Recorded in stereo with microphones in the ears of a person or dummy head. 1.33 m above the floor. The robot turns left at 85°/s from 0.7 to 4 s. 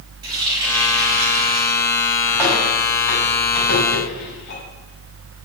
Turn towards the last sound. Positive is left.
turn(degrees=55)  # may be behind; listen again after turning